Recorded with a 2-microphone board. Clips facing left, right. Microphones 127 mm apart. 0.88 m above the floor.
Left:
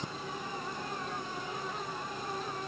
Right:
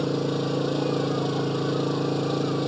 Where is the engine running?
85° right.